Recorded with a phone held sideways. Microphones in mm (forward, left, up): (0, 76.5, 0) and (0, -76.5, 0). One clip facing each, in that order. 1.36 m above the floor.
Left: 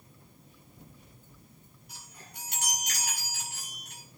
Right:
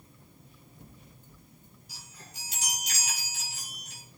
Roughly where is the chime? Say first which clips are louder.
Left 1 dB; left.